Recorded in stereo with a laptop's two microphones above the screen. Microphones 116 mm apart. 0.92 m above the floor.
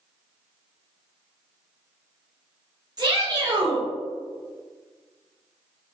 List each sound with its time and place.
3.0 s a shout: 35° right (ahead or behind), 1.2 m